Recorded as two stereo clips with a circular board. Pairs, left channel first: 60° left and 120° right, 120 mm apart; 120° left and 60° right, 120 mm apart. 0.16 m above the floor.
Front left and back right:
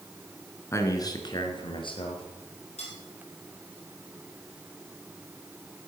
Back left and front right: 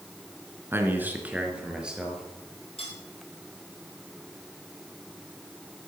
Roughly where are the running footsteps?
I don't hear running footsteps.